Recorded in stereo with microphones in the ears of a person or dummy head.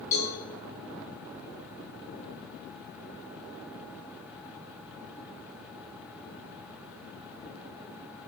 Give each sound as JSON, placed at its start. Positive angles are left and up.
{"t": 0.1, "sound": "a cowbell", "side_deg": 20, "distance_m": 5.5}